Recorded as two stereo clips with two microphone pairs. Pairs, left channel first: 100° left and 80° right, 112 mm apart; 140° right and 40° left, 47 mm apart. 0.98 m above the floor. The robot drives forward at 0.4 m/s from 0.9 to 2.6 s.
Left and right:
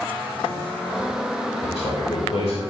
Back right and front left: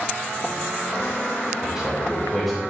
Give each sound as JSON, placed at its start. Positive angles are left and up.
{"t": 1.6, "sound": "a man speaking", "azimuth_deg": 120, "distance_m": 2.5}